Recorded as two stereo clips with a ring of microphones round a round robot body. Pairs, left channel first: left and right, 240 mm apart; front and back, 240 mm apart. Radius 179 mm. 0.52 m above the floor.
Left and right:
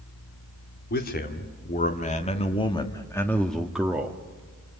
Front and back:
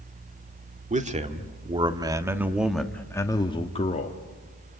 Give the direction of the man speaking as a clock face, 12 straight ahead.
8 o'clock.